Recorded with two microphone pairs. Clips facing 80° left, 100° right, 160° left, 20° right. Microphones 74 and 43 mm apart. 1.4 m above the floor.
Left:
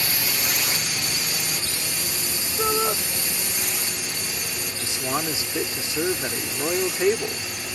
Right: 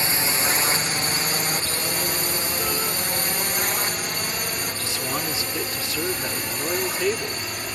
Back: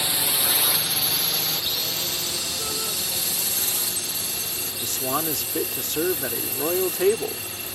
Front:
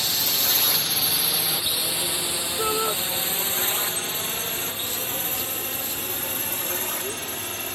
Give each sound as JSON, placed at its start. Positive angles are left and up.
{"t": 0.0, "sound": "a drone", "azimuth_deg": -140}
{"t": 2.6, "sound": "a shout", "azimuth_deg": 30}
{"t": 4.8, "sound": "a man speaking", "azimuth_deg": 150}